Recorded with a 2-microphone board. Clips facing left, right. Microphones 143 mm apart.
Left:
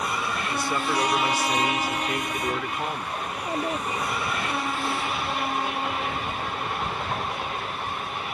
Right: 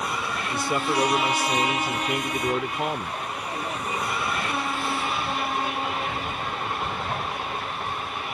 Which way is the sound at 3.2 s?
35° left (ahead or behind).